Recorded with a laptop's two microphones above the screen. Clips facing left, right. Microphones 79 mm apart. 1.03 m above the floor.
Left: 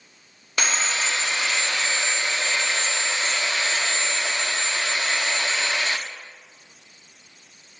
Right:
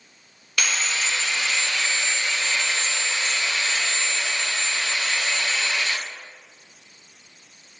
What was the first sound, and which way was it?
Sawing, 30° left (ahead or behind).